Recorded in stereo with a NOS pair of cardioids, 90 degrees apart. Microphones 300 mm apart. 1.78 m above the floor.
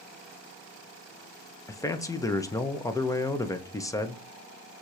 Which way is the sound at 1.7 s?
10° left.